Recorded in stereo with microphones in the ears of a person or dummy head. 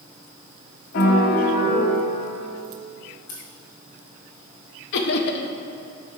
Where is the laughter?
65° left (ahead or behind), 0.7 m.